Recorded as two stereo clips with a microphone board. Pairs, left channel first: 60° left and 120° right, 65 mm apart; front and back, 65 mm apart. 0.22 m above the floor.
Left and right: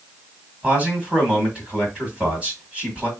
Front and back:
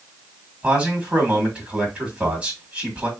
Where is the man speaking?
150° right, 1.7 m.